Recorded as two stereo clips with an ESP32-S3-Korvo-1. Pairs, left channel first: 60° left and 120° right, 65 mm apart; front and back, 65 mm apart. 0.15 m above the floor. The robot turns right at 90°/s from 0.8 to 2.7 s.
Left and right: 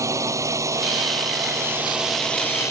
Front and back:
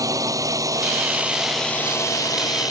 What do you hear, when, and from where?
0.0 s a drone: 155° right; by 2.7 s 20° left